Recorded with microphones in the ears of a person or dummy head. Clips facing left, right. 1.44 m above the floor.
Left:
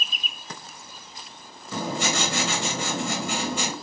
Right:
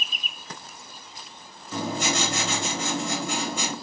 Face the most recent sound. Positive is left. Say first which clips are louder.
# even
turn(degrees=50)  # may be behind; listen again after turning